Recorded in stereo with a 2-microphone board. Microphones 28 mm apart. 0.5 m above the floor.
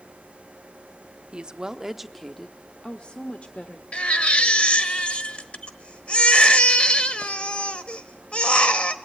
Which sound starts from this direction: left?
A baby crying, at 3.9 s.